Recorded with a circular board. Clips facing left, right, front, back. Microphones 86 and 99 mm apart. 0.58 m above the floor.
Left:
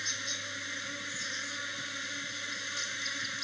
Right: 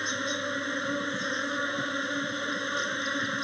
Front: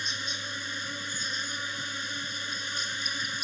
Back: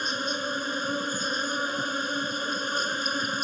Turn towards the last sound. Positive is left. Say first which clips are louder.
# right 10 dB, back 8 dB
turn(degrees=-135)